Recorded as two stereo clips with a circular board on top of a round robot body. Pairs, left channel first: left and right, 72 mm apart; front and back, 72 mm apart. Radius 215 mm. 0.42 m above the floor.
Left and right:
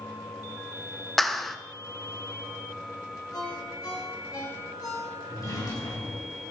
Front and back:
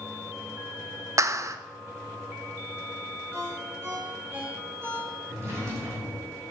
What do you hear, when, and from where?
1.2 s a clap: 175° left, 1.1 m
3.3 s a ringtone: 125° left, 7 m
5.3 s a drawer: 130° left, 7.5 m